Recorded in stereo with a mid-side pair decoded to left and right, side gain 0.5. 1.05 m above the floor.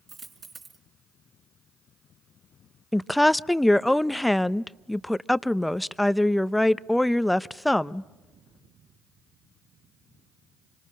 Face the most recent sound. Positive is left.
turn(degrees=5)